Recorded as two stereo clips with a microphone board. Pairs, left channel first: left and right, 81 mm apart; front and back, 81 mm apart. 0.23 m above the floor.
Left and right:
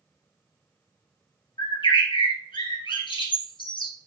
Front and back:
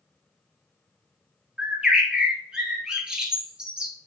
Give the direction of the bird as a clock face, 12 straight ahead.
9 o'clock.